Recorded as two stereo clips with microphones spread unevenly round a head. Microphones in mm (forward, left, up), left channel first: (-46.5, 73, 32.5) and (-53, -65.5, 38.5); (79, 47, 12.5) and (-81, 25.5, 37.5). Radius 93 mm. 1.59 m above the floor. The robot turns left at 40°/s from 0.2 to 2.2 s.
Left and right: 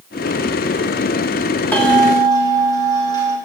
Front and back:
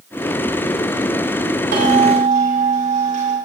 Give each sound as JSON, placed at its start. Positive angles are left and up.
{"t": 1.7, "sound": "a bell", "azimuth_deg": 165, "distance_m": 5.0}